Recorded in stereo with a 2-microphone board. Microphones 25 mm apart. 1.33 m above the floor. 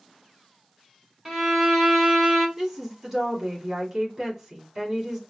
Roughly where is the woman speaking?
Right.